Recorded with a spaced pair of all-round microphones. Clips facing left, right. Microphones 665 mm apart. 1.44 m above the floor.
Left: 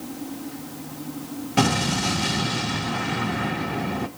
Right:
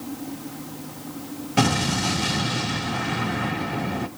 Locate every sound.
1.6 s an explosion: centre (ahead or behind), 0.9 m